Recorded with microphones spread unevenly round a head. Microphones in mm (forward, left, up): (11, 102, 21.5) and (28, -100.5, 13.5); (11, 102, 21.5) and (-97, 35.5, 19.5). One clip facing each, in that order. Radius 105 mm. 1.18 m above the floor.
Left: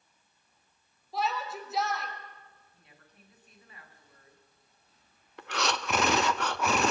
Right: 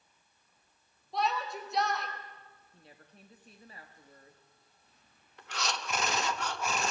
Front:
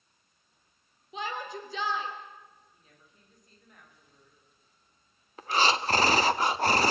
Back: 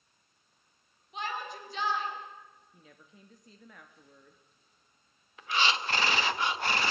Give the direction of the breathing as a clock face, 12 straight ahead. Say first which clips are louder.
Left 6 dB, front 4 dB; 9 o'clock.